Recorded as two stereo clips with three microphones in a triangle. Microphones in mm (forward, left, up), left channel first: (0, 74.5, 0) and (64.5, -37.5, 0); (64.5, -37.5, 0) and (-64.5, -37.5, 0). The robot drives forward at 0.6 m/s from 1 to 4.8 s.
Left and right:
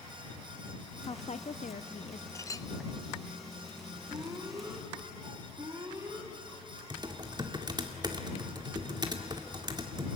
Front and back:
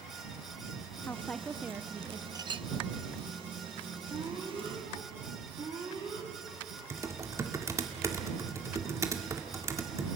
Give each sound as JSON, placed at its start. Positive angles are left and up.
{"t": 1.0, "sound": "a woman speaking", "azimuth_deg": 70, "distance_m": 0.7}
{"t": 2.4, "sound": "a clink", "azimuth_deg": 160, "distance_m": 0.5}
{"t": 4.1, "sound": "an alarm", "azimuth_deg": -125, "distance_m": 4.5}
{"t": 6.9, "sound": "typing on a keyboard", "azimuth_deg": -115, "distance_m": 2.0}